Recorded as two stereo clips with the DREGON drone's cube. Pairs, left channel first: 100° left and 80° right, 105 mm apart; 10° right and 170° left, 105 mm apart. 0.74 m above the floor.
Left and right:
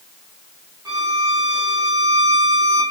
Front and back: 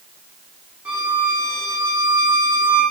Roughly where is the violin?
Behind right.